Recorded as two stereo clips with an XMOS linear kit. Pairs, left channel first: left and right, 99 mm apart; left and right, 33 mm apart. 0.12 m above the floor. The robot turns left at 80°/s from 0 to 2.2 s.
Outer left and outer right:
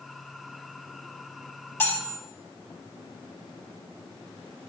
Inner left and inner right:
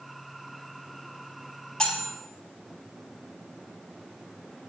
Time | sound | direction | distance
1.8 | cutlery clinking | 40° left | 0.8 m